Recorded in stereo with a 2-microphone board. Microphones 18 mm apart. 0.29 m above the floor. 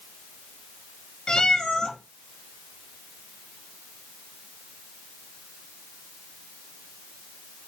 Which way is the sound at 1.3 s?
50° left (ahead or behind).